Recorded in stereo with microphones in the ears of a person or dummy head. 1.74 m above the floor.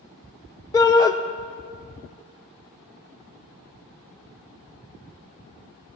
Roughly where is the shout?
Left.